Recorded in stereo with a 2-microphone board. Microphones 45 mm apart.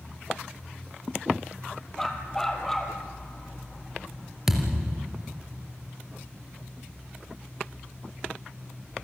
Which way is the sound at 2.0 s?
10° left (ahead or behind).